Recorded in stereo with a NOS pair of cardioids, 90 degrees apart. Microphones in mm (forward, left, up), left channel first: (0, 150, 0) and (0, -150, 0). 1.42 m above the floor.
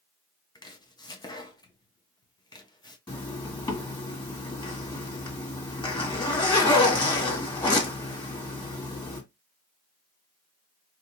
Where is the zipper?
15° left, 1.9 m.